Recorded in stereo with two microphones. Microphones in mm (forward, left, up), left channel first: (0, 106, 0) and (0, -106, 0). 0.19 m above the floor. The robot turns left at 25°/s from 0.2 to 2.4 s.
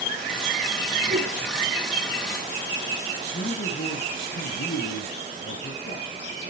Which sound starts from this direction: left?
A man speaking, at 3.3 s.